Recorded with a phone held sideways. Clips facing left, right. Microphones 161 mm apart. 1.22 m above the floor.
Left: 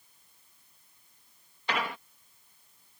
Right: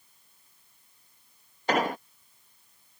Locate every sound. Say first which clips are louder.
1.7 s an explosion: right 7 dB; 45° right (ahead or behind)